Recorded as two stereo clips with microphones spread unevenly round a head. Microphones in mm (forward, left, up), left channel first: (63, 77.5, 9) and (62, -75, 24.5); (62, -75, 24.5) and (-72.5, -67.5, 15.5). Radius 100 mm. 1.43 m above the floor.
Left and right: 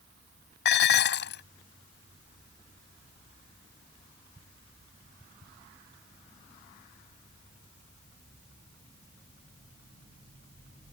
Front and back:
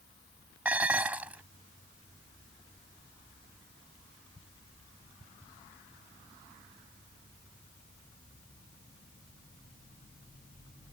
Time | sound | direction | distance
0.7 | dishes clattering | 95° left | ?